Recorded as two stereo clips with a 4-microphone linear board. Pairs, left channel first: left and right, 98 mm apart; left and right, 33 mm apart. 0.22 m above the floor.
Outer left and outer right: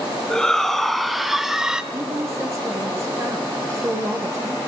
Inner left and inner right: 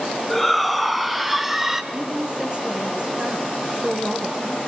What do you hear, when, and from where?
0.3 s a shout: 5° left (ahead or behind), 2 m; by 1.8 s 10° right (ahead or behind), 1.8 m
1.9 s a woman speaking: 30° right (ahead or behind), 4 m